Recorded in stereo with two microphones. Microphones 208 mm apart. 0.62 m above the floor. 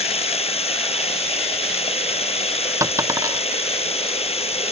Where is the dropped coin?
15° right (ahead or behind).